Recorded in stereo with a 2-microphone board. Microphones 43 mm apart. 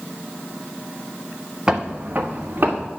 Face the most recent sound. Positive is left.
turn(degrees=-45)  # may be behind; listen again after turning